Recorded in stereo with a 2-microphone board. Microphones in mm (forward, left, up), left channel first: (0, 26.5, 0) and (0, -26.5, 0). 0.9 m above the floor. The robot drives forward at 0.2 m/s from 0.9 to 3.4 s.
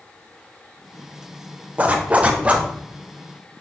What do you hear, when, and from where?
1.8 s a zipper: 25° right (ahead or behind), 1.0 m